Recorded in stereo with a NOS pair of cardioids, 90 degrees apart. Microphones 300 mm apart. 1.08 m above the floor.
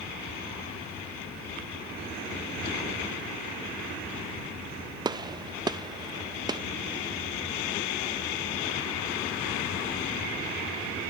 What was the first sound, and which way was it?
A gunshot, 15° right.